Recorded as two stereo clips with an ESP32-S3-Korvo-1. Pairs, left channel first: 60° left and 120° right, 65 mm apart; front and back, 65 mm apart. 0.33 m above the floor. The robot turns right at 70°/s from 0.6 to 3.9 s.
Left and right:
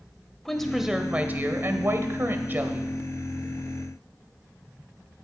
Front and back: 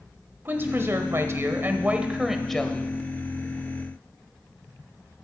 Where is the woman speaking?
145° left, 1.1 m; by 2.9 s 55° right, 1.1 m.